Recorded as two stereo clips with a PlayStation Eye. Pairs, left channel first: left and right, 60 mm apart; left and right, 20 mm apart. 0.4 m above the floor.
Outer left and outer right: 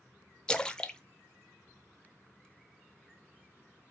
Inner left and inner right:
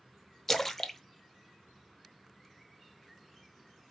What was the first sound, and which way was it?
A splash, 15° left (ahead or behind).